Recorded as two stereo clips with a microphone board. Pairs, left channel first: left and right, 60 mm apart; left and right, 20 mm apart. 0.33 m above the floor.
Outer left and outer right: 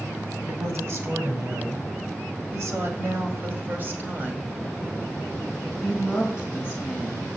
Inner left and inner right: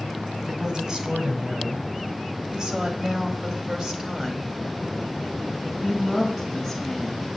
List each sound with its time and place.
0.5 s a woman speaking: 50° right (ahead or behind), 2.5 m; by 7.3 s 5° right (ahead or behind), 3 m